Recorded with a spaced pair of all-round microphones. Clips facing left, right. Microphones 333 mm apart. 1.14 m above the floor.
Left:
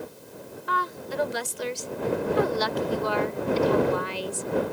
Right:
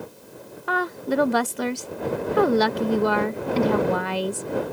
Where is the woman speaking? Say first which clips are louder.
Right 9 dB; 70° right (ahead or behind).